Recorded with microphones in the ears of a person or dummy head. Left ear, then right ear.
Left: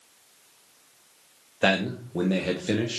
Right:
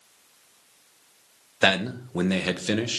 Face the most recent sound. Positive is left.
turn(degrees=-20)  # may be behind; listen again after turning